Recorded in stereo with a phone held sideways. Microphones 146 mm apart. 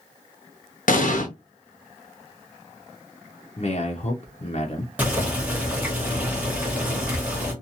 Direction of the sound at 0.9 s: 65° left (ahead or behind).